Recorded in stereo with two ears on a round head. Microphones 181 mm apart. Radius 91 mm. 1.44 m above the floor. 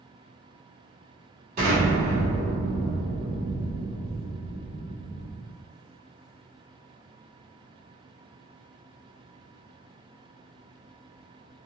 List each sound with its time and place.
1.6 s an explosion: 50° right (ahead or behind), 1.8 m